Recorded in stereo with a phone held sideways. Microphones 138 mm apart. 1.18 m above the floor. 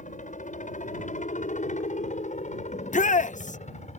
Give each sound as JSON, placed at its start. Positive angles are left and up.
{"t": 0.0, "sound": "a helicopter", "side_deg": 70}
{"t": 2.7, "sound": "a shout", "side_deg": 70}